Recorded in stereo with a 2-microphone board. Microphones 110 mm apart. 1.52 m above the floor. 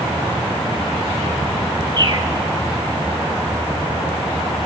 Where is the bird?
40° right (ahead or behind), 1.6 m.